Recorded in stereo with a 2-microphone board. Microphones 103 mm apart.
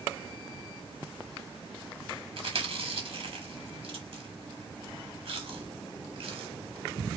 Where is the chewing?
60° right (ahead or behind), 1.3 m.